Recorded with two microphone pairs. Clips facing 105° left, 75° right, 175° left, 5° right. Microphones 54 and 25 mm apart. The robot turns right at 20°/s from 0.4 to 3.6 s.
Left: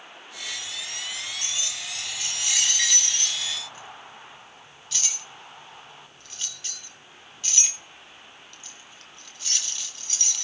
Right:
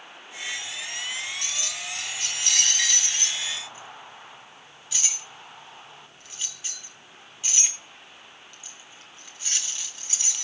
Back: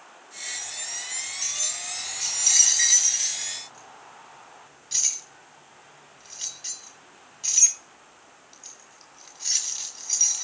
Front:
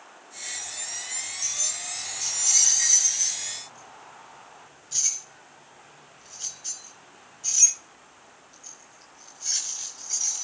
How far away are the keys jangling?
About 4 m.